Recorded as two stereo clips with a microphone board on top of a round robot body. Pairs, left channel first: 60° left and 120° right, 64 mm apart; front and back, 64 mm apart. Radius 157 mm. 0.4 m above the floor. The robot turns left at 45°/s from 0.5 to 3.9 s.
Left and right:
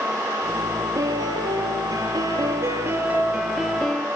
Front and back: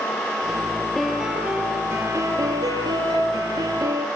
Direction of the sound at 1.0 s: 80° right.